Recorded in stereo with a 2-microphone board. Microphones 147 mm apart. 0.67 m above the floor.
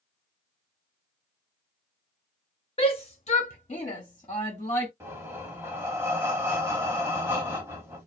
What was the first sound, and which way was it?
A shout, 40° left (ahead or behind).